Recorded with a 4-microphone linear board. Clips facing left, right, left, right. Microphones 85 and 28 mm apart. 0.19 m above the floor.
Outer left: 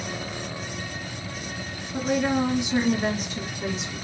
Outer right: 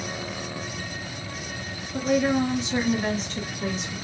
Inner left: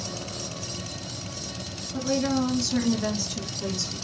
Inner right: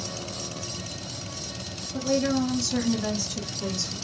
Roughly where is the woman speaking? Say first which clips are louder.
Outer right 1 dB, inner right 1 dB; centre.